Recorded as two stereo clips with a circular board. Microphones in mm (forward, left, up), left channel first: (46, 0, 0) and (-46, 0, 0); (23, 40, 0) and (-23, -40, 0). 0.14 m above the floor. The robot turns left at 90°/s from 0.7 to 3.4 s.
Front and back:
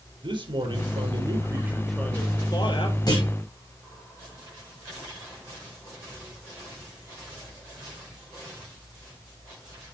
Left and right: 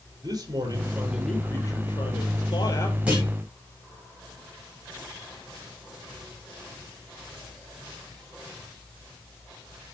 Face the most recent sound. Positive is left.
turn(degrees=-75)